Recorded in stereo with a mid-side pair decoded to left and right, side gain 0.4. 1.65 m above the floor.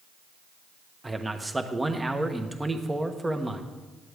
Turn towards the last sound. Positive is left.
turn(degrees=-15)